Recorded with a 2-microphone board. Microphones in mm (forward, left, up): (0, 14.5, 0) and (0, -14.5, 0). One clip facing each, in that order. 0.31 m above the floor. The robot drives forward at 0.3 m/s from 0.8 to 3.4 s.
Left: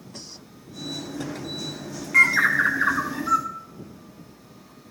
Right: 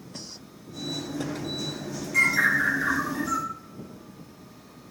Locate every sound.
2.1 s a bird: 45° left (ahead or behind), 2 m; by 3.5 s 40° left (ahead or behind), 2.5 m